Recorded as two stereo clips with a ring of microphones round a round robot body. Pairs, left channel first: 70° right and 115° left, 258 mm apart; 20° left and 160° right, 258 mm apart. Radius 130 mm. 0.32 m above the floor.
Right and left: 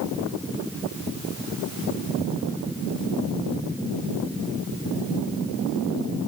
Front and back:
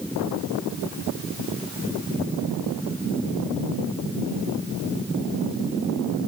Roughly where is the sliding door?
No sliding door in this recording.